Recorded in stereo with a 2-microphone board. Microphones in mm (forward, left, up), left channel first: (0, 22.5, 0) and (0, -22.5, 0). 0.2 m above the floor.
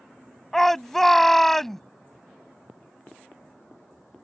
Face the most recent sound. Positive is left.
turn(degrees=5)  # may be behind; listen again after turning